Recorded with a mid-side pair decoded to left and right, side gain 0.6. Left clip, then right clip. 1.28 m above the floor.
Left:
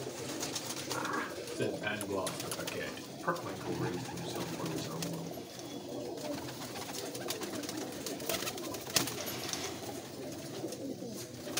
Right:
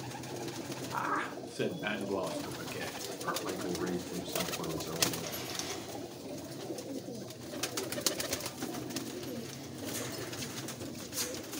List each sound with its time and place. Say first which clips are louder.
0.9 s a man speaking: right 3 dB; 50° right, 1.3 m; by 3.3 s 5° left, 1.3 m
3.4 s a man speaking: right 2 dB; 40° right, 1.3 m